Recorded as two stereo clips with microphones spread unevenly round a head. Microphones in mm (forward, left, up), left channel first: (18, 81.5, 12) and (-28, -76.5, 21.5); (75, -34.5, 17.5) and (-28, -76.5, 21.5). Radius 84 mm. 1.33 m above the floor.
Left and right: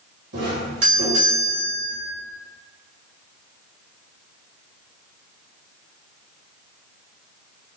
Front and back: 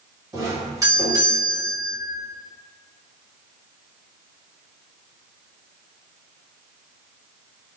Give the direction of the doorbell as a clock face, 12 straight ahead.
3 o'clock.